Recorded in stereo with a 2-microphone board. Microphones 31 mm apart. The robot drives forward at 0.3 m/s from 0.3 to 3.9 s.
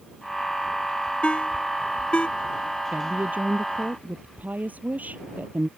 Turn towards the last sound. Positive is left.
turn(degrees=-60)  # may be behind; listen again after turning